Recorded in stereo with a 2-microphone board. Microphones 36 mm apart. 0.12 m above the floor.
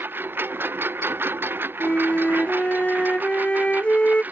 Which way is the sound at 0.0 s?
65° right (ahead or behind).